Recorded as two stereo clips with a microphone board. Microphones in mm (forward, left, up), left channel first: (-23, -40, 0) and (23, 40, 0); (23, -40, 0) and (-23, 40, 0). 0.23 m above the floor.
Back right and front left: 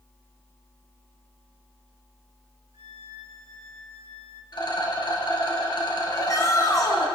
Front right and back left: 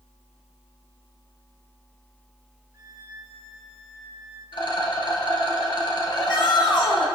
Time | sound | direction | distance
2.7 | a violin | 65° left | 2 m
4.5 | a rattle | 90° right | 3 m
6.1 | a shout | 75° right | 3 m